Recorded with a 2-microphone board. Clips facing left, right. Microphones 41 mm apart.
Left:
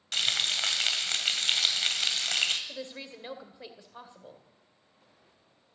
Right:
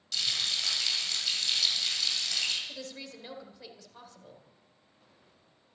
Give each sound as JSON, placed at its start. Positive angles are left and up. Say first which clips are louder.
{"t": 0.1, "sound": "frying", "louder": "left 3 dB", "side_deg": 50, "distance_m": 2.0}
{"t": 2.7, "sound": "a woman speaking", "louder": "left 2 dB", "side_deg": 20, "distance_m": 2.0}